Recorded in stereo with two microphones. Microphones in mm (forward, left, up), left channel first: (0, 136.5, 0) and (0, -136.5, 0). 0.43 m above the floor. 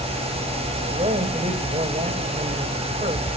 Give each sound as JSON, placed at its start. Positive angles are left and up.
{"t": 0.9, "sound": "a man speaking", "side_deg": -30, "distance_m": 1.8}